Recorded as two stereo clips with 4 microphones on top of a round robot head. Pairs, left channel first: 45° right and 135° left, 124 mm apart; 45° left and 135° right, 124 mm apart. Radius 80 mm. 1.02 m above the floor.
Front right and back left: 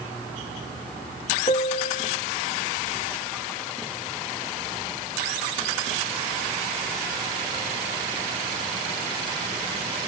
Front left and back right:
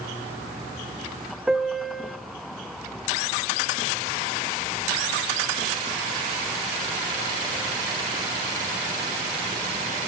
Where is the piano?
50° right, 0.7 m.